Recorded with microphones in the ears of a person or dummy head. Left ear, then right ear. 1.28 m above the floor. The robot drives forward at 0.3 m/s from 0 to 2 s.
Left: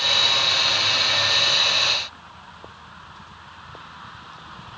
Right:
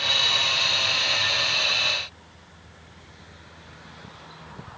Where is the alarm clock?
I don't hear an alarm clock.